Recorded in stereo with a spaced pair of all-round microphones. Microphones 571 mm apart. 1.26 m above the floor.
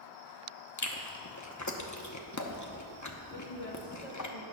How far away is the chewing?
About 0.9 m.